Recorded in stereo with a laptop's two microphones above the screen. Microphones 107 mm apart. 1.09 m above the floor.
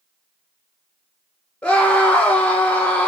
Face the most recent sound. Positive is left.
turn(degrees=10)  # may be behind; listen again after turning